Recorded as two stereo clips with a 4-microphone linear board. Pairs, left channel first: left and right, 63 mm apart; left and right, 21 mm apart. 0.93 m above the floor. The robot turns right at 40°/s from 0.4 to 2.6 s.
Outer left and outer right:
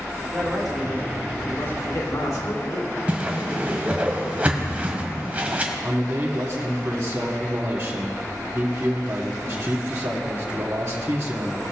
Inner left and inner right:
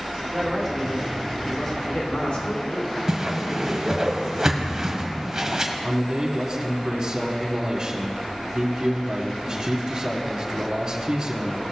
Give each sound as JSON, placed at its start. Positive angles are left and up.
{"t": 0.2, "sound": "a man speaking", "azimuth_deg": -10, "distance_m": 3.0}
{"t": 3.1, "sound": "a whoosh", "side_deg": -25, "distance_m": 1.5}
{"t": 5.8, "sound": "a man speaking", "side_deg": -40, "distance_m": 1.7}